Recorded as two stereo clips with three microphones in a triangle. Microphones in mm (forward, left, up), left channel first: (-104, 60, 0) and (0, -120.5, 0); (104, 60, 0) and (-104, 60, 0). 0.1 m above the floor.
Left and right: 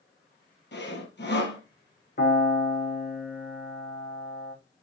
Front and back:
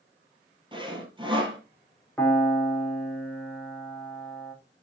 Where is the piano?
85° left, 4.5 m.